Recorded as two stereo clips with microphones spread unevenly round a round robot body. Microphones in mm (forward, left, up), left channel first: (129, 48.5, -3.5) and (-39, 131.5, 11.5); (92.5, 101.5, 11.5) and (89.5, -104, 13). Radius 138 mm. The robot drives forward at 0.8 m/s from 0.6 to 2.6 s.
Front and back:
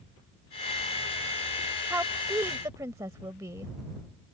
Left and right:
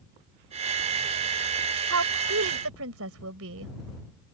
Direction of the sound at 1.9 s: 120° right.